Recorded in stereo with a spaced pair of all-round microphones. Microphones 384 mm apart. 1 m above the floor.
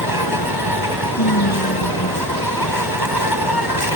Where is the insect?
75° left (ahead or behind).